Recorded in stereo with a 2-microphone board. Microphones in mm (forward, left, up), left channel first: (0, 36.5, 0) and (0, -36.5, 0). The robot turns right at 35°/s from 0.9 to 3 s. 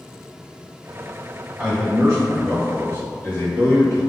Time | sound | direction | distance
1.6 | a man speaking | 5° right | 1.9 m